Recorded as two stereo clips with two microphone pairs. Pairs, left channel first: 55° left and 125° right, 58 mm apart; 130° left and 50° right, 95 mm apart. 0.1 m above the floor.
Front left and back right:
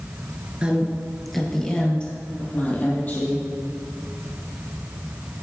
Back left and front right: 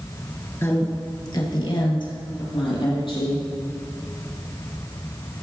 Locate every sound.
0.6 s a woman speaking: straight behind, 1.6 m; by 3.4 s 110° left, 4 m